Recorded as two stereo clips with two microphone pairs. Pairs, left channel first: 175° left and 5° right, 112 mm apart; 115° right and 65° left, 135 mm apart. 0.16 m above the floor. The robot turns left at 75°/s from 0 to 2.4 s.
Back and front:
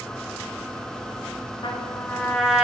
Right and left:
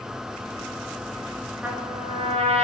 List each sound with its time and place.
1.6 s a trumpet: 145° left, 0.7 m; by 2.6 s 85° left, 0.7 m